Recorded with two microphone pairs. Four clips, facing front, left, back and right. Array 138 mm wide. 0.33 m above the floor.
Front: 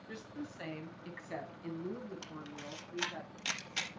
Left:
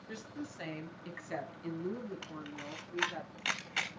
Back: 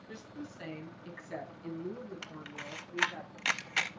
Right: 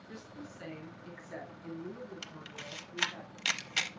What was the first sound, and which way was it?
A woman speaking, 30° left.